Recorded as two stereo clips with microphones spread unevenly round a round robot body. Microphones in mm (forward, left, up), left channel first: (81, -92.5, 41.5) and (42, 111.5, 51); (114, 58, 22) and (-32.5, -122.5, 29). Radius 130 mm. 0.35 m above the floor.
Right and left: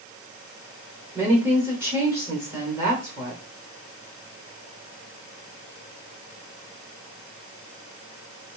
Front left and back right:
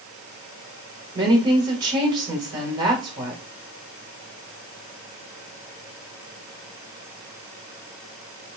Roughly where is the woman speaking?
Behind.